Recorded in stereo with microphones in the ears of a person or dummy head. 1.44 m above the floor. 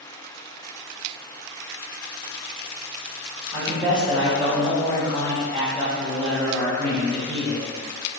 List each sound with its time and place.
3.5 s a man speaking: centre (ahead or behind), 1.4 m